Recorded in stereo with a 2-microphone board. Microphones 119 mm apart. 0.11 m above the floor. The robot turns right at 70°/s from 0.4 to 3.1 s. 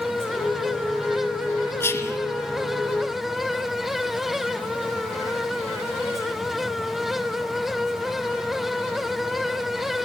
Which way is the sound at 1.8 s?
20° left (ahead or behind).